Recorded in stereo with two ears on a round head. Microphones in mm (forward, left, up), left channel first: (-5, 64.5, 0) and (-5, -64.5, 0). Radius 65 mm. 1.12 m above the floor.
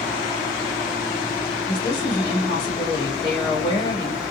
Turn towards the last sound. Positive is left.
turn(degrees=25)  # may be behind; listen again after turning